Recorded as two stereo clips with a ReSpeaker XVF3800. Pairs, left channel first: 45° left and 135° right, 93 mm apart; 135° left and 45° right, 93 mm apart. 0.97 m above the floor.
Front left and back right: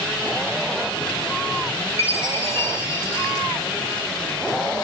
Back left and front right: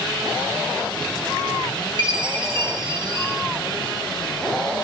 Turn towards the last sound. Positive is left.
turn(degrees=-15)